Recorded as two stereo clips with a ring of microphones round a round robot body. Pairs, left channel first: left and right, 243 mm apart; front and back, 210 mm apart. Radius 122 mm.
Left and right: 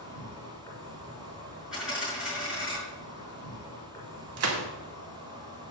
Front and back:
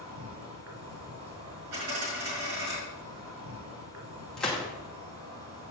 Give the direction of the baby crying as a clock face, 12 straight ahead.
No baby crying in this recording.